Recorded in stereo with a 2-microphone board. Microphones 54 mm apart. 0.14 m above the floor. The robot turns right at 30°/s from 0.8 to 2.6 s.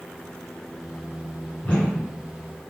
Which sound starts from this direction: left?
A whoosh, at 1.6 s.